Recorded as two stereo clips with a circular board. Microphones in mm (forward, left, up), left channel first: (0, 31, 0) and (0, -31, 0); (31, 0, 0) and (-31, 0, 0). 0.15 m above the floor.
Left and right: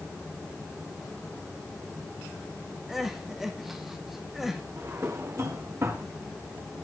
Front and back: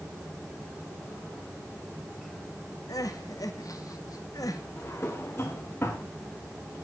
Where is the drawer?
50° right, 3.5 m.